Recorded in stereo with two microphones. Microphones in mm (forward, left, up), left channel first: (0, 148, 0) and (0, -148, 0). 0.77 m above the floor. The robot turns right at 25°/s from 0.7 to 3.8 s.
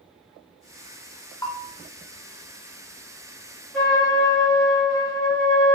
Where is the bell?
10° left (ahead or behind), 0.8 m; by 1.7 s 15° left (ahead or behind), 0.8 m.